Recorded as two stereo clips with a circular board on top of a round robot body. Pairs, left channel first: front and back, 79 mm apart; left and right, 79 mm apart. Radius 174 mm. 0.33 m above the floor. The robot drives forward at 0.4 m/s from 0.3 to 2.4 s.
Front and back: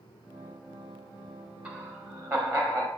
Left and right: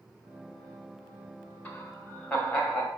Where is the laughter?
135° left, 1.0 m; by 2.9 s 155° left, 1.1 m.